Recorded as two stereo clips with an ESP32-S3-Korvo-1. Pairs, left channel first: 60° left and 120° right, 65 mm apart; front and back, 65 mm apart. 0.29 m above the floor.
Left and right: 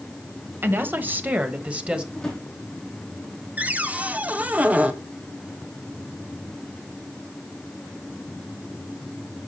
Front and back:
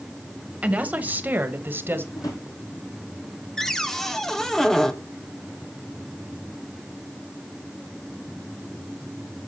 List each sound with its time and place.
0.6 s a woman speaking: 130° right, 1.5 m; by 2.0 s straight behind, 1.5 m
2.1 s a drawer: 20° right, 4.5 m
3.6 s a cupboard door: 80° right, 1.1 m